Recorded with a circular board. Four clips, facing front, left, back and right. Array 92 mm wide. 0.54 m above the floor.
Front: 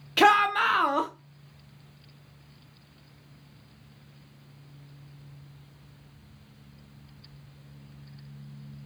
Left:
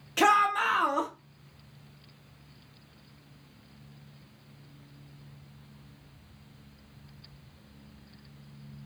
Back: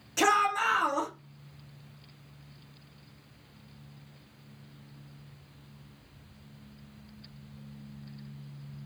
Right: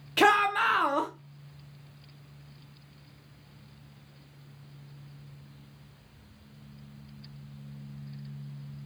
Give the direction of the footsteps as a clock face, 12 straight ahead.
I don't hear footsteps.